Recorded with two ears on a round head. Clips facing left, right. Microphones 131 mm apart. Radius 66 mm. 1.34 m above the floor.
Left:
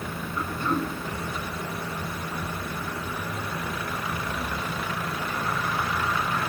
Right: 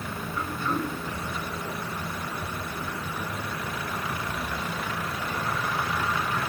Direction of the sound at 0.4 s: 5° right (ahead or behind).